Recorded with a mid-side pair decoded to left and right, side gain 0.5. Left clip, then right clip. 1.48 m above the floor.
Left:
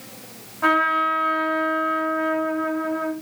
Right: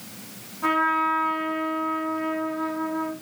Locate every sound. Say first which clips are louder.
0.6 s a trumpet: left 3 dB; 50° left, 3.5 m